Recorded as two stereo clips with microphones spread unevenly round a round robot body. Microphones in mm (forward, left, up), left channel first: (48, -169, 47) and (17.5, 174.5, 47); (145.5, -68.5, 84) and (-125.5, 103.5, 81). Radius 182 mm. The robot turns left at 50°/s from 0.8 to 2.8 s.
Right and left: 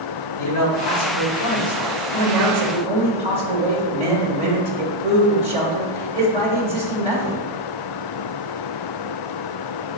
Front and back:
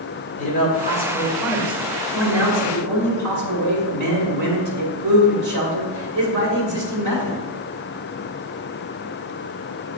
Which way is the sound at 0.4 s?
95° right.